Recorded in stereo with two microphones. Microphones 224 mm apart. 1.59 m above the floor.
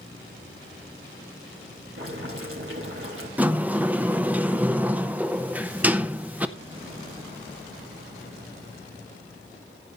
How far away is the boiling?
About 4 m.